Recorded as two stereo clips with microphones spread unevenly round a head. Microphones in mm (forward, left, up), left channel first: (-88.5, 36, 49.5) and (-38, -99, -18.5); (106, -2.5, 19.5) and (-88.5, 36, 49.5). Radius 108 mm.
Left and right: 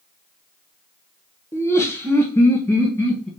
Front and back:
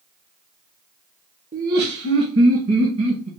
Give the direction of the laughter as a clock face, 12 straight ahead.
7 o'clock.